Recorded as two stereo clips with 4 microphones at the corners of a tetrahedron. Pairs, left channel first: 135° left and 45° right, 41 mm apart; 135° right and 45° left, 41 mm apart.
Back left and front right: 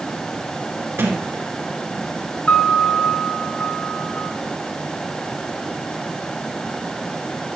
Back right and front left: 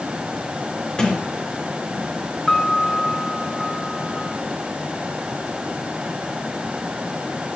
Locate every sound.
1.0 s a sliding door: 60° right, 2 m
2.5 s a piano: 160° left, 1.4 m